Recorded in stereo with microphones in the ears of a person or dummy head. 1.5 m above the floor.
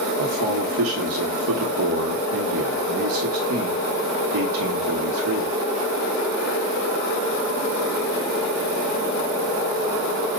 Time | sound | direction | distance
0.2 | a man speaking | 80° right | 1.0 m